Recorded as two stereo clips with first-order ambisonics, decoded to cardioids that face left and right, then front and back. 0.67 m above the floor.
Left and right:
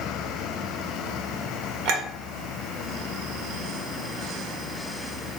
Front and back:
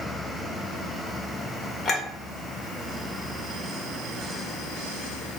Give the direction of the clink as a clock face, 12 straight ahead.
3 o'clock.